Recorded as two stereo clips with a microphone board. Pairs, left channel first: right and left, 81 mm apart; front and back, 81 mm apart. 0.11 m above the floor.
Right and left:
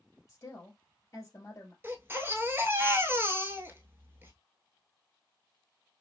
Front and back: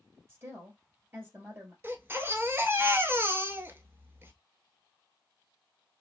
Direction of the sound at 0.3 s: 130° right.